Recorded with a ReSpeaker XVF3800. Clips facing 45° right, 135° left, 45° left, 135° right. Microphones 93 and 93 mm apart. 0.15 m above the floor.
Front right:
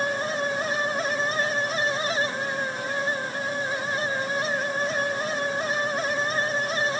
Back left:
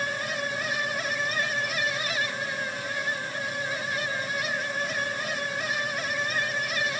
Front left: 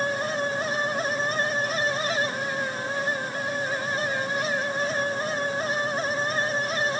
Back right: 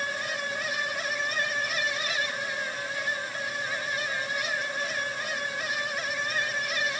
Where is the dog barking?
No dog barking in this recording.